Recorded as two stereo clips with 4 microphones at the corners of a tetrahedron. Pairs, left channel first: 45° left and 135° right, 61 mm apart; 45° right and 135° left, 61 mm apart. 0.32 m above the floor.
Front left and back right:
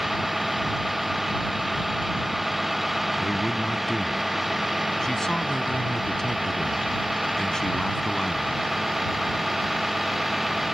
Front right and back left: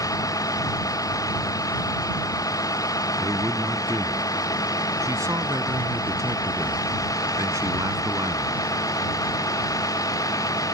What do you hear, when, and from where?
0.0 s a vehicle: 45° right
3.2 s a man speaking: 125° left